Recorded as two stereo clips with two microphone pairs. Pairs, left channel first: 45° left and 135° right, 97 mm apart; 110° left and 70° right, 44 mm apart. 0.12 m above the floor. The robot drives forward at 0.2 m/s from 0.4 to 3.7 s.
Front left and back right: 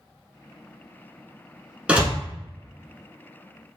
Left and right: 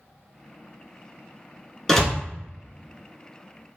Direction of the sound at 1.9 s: 175° right.